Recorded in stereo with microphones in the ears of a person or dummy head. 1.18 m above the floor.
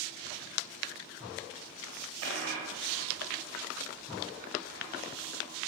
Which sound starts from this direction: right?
A dropped coin, at 2.2 s.